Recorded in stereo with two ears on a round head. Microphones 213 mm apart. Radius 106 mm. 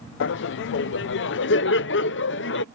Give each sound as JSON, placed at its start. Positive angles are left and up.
{"t": 0.2, "sound": "laughter", "side_deg": 50}